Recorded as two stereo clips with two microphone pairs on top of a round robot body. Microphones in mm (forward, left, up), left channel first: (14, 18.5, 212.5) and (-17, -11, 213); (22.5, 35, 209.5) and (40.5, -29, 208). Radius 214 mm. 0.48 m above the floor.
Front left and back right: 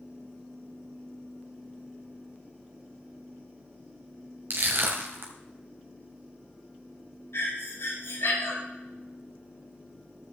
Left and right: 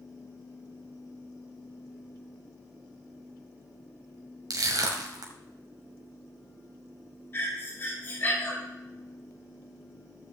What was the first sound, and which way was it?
Crushing, 100° right.